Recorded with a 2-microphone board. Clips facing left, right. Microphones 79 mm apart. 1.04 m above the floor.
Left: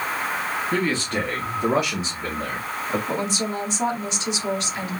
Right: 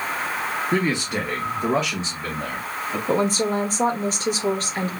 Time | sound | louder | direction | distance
0.7 | a man speaking | right 1 dB | 25° right (ahead or behind) | 0.9 m
3.1 | a woman speaking | right 5 dB | 45° right (ahead or behind) | 0.5 m